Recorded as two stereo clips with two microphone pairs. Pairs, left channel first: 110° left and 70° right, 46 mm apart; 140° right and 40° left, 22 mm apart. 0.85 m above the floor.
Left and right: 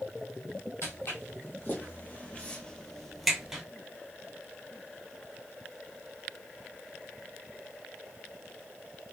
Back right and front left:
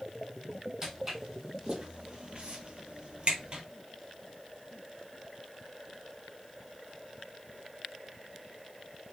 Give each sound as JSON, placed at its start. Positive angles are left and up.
{"t": 0.8, "sound": "footsteps", "azimuth_deg": 110, "distance_m": 1.8}